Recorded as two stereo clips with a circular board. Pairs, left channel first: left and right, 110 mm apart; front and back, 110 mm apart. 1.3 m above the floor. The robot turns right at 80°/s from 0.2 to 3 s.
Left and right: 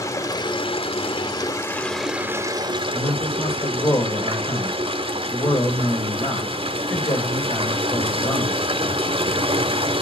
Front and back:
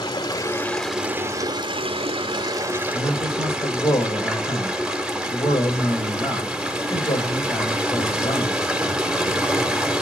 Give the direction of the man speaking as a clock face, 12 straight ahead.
11 o'clock.